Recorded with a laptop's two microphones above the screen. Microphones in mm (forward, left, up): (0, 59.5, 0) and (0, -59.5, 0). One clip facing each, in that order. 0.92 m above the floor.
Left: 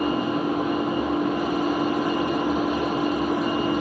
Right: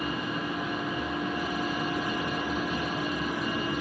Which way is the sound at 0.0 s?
45° left (ahead or behind).